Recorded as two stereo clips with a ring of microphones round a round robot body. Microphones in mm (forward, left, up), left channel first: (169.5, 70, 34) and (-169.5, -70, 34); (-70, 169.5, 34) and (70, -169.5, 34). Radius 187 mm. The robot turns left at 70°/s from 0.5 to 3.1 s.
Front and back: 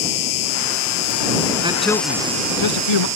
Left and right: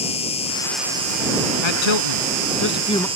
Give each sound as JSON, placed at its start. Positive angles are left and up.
{"t": 0.0, "sound": "an insect", "azimuth_deg": 40}
{"t": 1.6, "sound": "a man speaking", "azimuth_deg": 125}